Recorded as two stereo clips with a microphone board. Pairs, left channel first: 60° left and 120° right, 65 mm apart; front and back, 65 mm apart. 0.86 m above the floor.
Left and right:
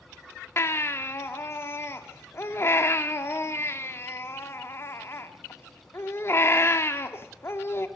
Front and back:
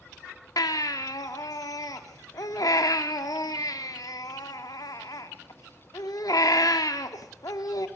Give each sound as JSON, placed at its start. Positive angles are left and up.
{"t": 0.6, "sound": "a baby crying", "azimuth_deg": 15, "distance_m": 1.2}